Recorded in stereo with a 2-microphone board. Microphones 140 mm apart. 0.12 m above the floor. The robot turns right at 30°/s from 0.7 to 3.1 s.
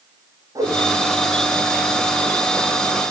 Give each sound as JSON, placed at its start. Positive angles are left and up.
{"t": 0.6, "sound": "a whoosh", "side_deg": -25, "distance_m": 7.0}